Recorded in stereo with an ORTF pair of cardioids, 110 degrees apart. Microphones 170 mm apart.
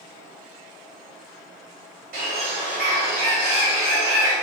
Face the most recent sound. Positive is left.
turn(degrees=-70)